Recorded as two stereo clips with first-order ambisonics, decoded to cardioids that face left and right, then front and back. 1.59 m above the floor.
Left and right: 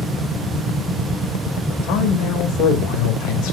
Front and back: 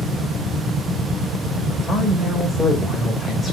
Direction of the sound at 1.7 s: 80° left.